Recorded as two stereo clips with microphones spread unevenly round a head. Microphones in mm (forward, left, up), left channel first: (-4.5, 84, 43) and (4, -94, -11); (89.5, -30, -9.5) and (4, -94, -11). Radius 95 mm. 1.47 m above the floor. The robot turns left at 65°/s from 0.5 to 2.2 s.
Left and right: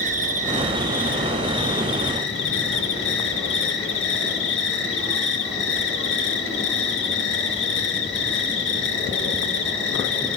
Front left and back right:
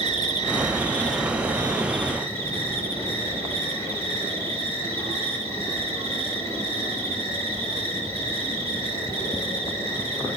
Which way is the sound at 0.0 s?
140° right.